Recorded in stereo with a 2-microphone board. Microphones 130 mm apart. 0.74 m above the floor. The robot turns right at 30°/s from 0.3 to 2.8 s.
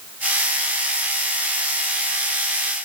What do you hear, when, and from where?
Only background noise.